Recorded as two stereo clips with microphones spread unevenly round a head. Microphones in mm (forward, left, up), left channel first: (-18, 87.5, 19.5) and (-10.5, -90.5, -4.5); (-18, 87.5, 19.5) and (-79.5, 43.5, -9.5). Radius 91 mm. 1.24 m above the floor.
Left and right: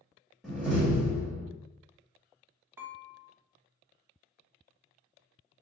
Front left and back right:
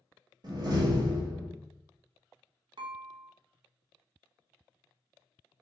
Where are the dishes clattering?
170° right, 0.7 m.